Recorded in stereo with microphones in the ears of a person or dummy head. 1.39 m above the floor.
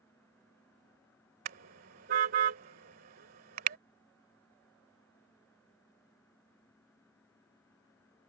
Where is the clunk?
I don't hear a clunk.